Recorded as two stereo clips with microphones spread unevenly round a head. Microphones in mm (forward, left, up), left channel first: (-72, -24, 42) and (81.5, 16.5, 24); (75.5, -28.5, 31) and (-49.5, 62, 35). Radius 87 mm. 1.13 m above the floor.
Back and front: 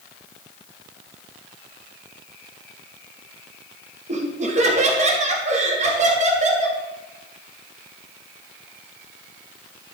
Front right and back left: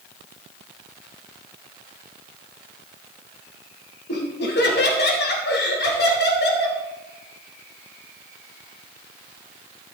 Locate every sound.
4.1 s laughter: 30° right, 2.5 m